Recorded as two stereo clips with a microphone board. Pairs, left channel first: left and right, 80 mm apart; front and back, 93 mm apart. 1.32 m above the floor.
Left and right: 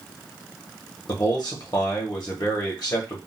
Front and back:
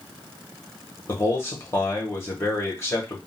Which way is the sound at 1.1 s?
60° left.